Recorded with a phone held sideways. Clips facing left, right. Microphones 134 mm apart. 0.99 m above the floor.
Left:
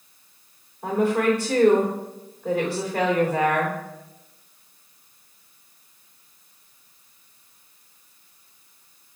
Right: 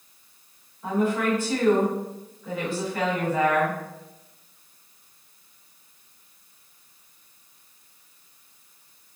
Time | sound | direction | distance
0.8 | a woman speaking | 80° left | 3 m